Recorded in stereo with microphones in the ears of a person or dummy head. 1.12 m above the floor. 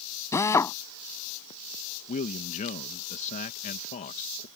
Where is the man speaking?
35° left (ahead or behind).